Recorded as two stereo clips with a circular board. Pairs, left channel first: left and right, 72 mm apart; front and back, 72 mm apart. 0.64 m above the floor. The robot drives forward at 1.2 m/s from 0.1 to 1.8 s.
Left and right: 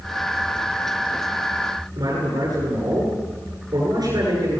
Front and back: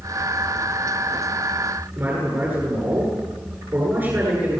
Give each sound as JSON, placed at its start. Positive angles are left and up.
{"t": 2.0, "sound": "a man speaking", "azimuth_deg": -125, "distance_m": 10.0}